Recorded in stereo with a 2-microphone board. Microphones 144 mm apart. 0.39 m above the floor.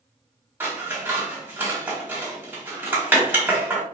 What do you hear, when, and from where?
0.6 s scissors: 15° right (ahead or behind), 1.4 m